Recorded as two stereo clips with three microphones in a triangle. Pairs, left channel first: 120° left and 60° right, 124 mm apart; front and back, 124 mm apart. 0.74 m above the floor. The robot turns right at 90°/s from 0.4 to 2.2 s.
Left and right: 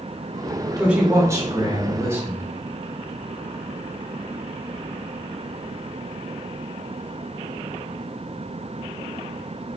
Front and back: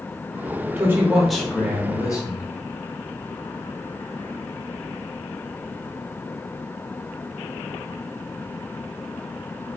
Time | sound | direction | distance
0.8 | a man speaking | 140° right | 0.7 m